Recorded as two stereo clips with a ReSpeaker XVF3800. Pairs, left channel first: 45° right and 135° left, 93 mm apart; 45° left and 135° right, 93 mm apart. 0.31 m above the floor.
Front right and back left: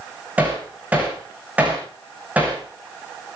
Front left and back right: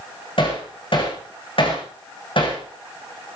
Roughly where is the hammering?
Ahead left.